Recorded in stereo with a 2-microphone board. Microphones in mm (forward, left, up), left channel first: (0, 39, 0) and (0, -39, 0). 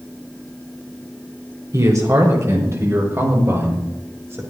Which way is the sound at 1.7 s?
40° right (ahead or behind).